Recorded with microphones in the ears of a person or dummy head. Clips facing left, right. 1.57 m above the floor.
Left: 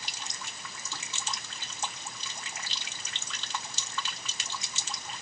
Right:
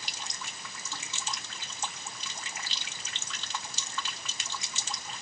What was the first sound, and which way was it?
Only background noise.